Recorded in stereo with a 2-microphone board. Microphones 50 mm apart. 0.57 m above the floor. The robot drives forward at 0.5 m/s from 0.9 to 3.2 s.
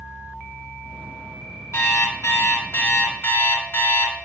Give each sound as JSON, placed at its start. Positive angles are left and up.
{"t": 1.7, "sound": "an alarm clock", "side_deg": 65, "distance_m": 2.0}